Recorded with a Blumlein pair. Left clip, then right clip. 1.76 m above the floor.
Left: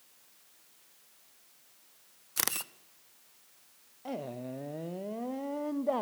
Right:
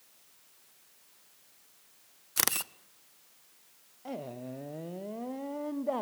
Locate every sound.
2.4 s a camera shutter: 10° right, 0.6 m
4.0 s a man speaking: 5° left, 0.6 m